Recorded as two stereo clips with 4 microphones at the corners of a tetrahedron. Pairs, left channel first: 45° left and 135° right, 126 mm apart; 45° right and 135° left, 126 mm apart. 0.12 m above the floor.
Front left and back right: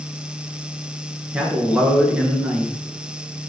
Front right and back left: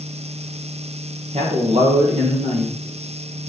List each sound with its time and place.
1.3 s a man speaking: 145° left, 2.5 m